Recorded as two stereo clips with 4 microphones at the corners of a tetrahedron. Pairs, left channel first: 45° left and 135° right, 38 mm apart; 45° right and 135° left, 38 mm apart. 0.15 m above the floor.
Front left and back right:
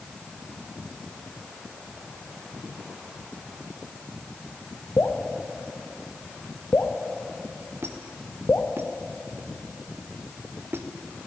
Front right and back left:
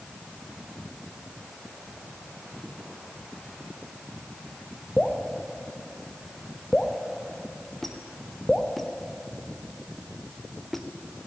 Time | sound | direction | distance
5.0 | dripping | 25° left | 1.8 m
7.8 | a squeak | 125° right | 1.6 m